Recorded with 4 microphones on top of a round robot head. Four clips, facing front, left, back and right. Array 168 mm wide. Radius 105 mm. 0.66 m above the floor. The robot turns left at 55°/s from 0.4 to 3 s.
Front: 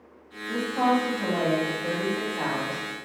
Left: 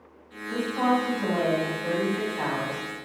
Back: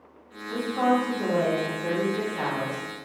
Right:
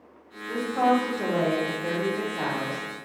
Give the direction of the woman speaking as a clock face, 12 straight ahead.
2 o'clock.